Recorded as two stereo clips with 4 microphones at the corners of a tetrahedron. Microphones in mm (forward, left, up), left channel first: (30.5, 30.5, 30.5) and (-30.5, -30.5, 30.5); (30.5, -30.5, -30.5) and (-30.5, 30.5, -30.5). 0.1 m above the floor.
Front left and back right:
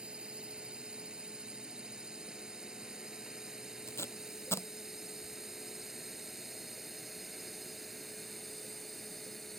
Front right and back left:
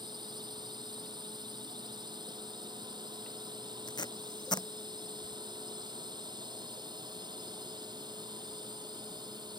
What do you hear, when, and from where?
0.0 s a drone: 150° left; by 9.6 s 130° left
3.9 s tape being pulled: 15° right